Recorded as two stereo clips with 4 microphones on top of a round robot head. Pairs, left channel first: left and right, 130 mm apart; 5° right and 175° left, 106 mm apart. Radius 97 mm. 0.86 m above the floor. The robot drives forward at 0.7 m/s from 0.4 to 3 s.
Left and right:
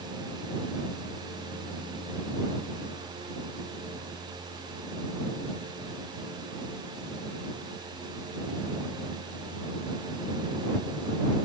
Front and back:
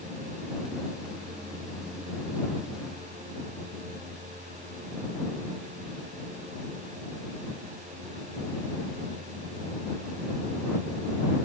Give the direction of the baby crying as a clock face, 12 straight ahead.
I don't hear a baby crying.